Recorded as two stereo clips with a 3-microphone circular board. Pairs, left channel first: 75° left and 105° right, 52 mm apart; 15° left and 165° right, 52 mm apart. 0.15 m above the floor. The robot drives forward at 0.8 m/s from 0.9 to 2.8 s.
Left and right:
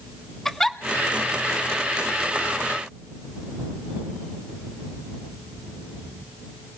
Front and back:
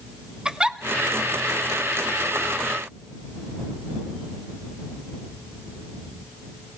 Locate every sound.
0.5 s a giggle: 150° left, 0.9 m